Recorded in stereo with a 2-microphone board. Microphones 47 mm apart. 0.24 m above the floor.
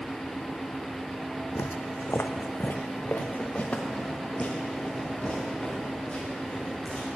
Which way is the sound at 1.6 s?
70° left (ahead or behind).